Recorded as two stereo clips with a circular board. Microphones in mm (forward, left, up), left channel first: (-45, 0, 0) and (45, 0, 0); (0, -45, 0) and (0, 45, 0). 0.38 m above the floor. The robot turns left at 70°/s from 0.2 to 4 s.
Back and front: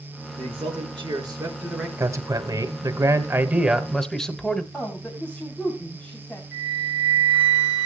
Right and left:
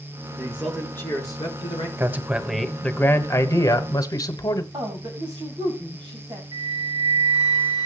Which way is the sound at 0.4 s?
20° left.